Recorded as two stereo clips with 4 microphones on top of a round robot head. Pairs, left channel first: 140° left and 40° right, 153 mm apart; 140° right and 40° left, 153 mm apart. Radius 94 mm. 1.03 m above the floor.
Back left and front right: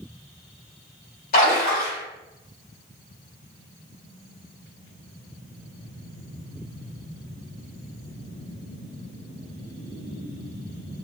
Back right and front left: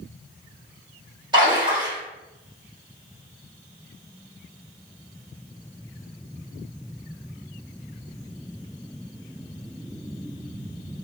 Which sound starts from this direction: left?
A splash, at 1.3 s.